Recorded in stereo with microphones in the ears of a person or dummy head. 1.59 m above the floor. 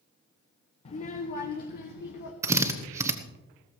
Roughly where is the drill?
Right.